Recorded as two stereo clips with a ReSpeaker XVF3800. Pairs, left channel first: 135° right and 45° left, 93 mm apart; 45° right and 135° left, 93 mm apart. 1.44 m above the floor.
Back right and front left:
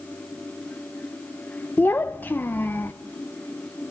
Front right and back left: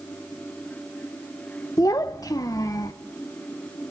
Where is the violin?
No violin in this recording.